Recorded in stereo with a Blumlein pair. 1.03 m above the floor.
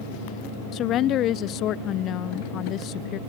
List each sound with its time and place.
0.7 s a woman speaking: 35° left